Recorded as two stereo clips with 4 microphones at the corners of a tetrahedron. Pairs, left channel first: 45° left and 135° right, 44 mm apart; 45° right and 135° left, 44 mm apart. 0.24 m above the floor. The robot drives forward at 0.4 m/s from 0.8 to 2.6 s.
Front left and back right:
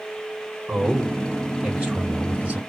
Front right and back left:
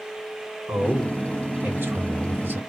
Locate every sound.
0.7 s a man speaking: 155° left, 2.5 m; by 2.6 s 160° left, 3 m